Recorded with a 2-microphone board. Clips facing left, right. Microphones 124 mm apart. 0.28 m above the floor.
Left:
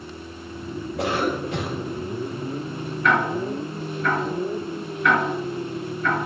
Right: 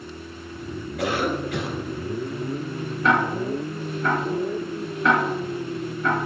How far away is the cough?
About 3 m.